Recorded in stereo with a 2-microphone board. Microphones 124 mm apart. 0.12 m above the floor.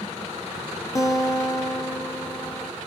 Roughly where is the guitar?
Left.